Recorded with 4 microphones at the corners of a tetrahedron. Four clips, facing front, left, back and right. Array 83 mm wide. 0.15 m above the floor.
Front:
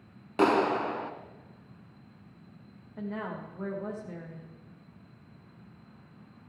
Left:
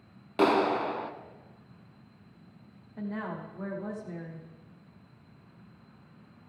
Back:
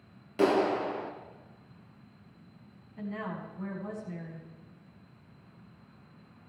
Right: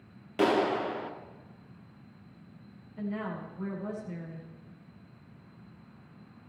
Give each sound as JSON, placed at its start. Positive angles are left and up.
{"t": 0.4, "sound": "a clap", "azimuth_deg": 25, "distance_m": 1.2}
{"t": 3.0, "sound": "a woman speaking", "azimuth_deg": 35, "distance_m": 7.0}